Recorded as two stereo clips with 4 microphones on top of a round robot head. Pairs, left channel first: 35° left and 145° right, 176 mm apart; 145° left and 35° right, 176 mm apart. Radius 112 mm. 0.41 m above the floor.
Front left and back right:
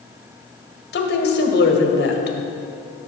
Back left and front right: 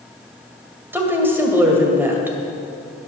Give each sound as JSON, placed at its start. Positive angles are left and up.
{"t": 0.9, "sound": "a woman speaking", "azimuth_deg": 40, "distance_m": 2.0}